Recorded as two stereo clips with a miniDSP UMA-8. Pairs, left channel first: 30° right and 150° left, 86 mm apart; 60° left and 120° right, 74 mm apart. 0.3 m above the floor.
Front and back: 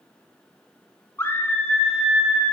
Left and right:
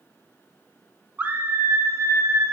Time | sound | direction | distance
1.2 | a scream | 70° right | 1.1 m